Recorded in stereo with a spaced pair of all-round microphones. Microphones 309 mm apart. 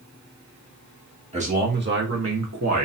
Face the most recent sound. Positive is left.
turn(degrees=-60)  # may be behind; listen again after turning